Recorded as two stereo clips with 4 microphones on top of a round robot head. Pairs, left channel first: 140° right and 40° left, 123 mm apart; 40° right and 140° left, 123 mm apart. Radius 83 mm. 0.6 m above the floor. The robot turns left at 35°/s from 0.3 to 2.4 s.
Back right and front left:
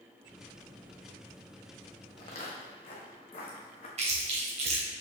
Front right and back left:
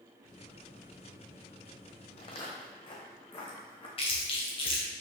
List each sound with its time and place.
2.2 s footsteps: 85° right, 1.8 m; by 3.9 s 90° right, 3 m
4.0 s chewing: 5° left, 2.5 m